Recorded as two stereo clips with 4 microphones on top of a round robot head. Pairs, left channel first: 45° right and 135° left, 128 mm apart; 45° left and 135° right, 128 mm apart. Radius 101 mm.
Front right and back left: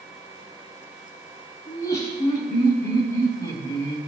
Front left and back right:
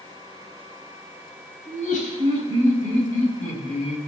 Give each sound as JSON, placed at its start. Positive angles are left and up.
{"t": 1.7, "sound": "laughter", "azimuth_deg": 25, "distance_m": 6.0}